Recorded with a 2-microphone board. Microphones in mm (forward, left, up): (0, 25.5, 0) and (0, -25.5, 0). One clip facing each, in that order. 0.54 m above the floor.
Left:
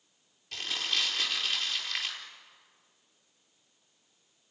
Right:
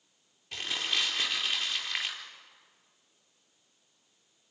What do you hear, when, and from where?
0.5 s crumpling: 15° right (ahead or behind), 5 m